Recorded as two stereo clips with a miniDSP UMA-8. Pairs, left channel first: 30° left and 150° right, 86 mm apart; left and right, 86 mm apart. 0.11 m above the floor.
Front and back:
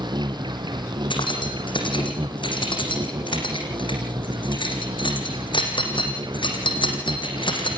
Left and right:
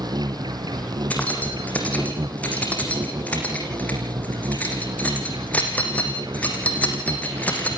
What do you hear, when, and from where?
0.0 s an insect: 125° right, 1.4 m
1.1 s keys jangling: 15° left, 4.5 m